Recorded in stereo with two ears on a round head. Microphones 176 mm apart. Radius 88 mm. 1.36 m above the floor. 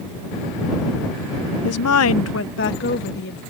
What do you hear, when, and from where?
1.6 s a woman speaking: 75° left (ahead or behind); by 3.4 s 55° left (ahead or behind)